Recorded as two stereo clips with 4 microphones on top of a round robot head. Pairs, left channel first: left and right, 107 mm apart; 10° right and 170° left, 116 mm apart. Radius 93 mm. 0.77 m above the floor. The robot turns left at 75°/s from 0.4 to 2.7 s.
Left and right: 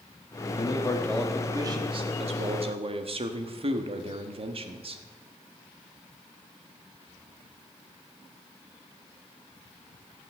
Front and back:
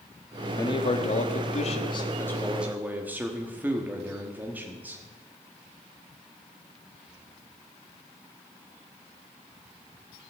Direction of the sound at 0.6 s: 50° left.